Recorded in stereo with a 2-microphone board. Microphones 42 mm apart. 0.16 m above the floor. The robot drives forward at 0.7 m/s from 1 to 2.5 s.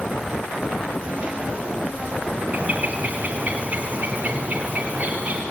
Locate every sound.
2.5 s a bird: 40° right (ahead or behind), 2 m